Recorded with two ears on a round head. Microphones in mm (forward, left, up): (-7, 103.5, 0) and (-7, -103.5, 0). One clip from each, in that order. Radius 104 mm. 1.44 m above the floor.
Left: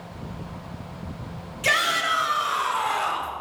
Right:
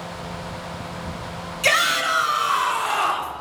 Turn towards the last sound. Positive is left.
turn(degrees=-75)  # may be behind; listen again after turning